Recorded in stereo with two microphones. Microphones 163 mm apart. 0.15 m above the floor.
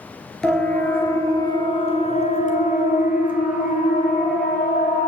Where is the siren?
5° left (ahead or behind), 3.5 m; by 5.1 s 50° left (ahead or behind), 6 m.